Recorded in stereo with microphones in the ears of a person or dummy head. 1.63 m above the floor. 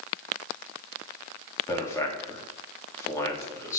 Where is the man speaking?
15° left (ahead or behind), 3.5 m.